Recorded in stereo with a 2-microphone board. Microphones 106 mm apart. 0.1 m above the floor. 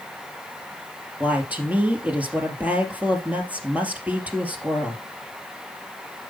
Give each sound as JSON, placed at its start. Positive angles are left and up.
{"t": 1.2, "sound": "a woman speaking", "side_deg": -15, "distance_m": 2.5}